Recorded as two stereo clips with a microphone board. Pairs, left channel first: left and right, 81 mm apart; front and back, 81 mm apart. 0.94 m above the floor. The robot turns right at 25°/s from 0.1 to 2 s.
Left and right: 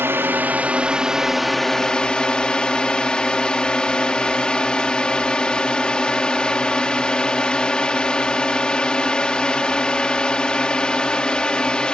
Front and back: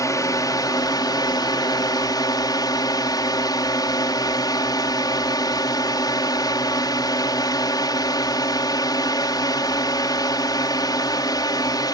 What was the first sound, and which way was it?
A drone, 35° right.